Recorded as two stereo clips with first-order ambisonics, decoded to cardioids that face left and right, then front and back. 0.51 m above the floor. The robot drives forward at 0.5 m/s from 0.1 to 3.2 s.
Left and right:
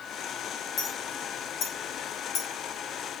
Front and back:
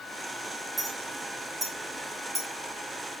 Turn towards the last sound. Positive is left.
turn(degrees=110)